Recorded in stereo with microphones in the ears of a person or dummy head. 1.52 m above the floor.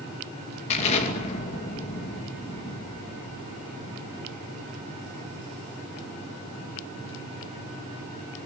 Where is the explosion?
35° left (ahead or behind), 2.5 m.